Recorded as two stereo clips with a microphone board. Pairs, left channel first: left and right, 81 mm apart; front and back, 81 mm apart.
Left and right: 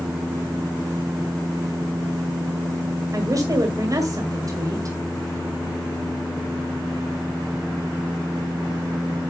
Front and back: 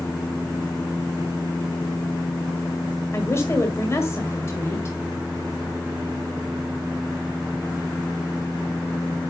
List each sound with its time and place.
3.1 s a woman speaking: 50° right, 1.8 m